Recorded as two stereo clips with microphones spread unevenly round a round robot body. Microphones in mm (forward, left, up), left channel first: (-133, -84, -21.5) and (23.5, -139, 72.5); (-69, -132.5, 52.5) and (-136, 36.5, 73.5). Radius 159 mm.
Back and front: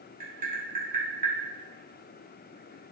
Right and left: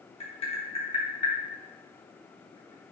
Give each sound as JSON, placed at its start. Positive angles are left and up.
{"t": 0.2, "sound": "tapping", "azimuth_deg": -80, "distance_m": 0.9}